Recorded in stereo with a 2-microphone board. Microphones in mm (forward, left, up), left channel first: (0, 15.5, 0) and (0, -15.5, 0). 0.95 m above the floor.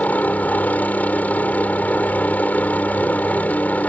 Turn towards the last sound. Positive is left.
turn(degrees=60)  # may be behind; listen again after turning